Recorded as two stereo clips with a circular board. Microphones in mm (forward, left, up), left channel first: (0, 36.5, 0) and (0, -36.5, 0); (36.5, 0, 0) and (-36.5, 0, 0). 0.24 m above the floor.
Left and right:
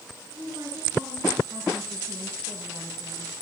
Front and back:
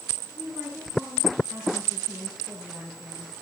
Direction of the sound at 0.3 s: 110° right.